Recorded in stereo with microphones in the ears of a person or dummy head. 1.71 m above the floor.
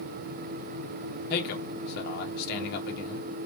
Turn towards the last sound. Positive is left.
turn(degrees=60)  # may be behind; listen again after turning